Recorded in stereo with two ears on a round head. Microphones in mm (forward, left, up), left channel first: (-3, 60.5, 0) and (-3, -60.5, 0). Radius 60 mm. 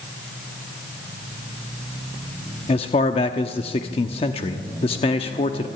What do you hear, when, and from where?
2.7 s a man speaking: 45° left (ahead or behind), 1.0 m